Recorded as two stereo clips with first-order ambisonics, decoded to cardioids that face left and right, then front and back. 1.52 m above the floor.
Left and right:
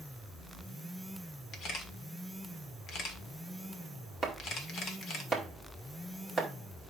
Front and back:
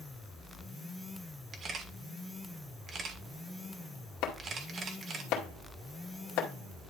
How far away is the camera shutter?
About 1.4 m.